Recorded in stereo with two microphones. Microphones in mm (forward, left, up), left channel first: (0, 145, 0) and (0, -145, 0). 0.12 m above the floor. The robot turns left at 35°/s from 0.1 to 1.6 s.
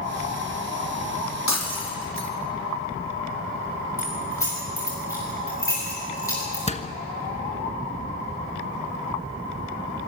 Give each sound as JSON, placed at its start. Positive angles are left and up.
{"t": 1.5, "sound": "breaking glass", "side_deg": 70, "distance_m": 3.5}
{"t": 4.0, "sound": "keys jangling", "side_deg": 10, "distance_m": 9.5}
{"t": 6.7, "sound": "a door slam", "side_deg": 25, "distance_m": 1.1}